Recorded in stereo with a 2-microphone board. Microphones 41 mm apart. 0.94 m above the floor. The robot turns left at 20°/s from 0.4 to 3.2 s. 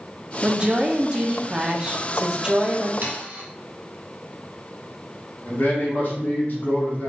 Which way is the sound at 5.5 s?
40° left (ahead or behind).